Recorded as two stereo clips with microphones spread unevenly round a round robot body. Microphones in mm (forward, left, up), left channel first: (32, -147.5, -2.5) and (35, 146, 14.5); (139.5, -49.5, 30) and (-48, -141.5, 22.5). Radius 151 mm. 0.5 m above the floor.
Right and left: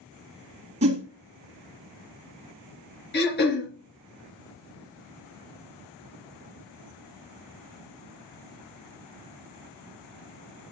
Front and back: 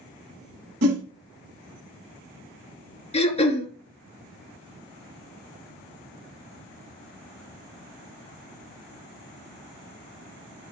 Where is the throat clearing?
35° right, 3 m.